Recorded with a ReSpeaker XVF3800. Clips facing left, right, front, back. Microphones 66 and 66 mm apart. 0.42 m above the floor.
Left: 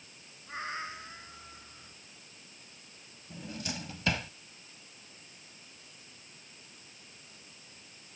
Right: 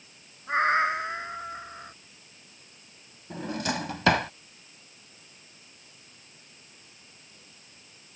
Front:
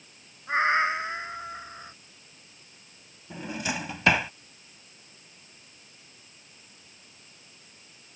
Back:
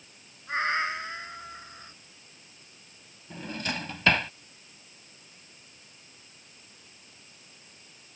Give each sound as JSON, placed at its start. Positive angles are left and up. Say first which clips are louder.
{"t": 0.5, "sound": "a cat meowing", "louder": "right 15 dB, front 5 dB", "azimuth_deg": -65}
{"t": 3.3, "sound": "a drawer", "louder": "right 10 dB, front 2 dB", "azimuth_deg": -80}